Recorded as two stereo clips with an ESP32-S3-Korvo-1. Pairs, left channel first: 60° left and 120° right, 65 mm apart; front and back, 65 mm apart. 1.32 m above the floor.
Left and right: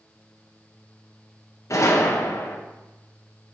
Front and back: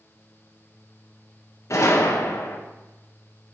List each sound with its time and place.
1.7 s a gunshot: 30° left, 1.7 m